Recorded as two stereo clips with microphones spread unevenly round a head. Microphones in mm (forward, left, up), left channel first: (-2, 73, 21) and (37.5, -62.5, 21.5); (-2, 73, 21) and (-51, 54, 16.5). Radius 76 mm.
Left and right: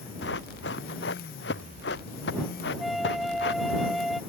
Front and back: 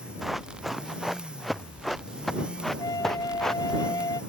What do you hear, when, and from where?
0.2 s running footsteps: 115° left; by 3.8 s 105° left
2.8 s a flute: 15° left